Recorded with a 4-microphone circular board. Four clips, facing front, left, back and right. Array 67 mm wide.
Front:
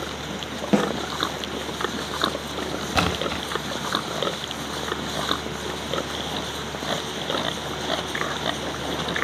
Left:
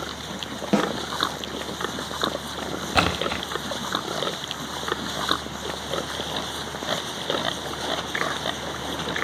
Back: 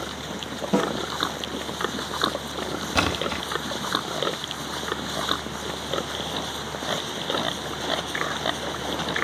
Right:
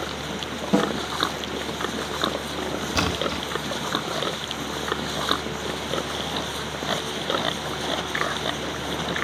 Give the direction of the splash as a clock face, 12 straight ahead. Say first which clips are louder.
Left 4 dB, front 1 dB; 9 o'clock.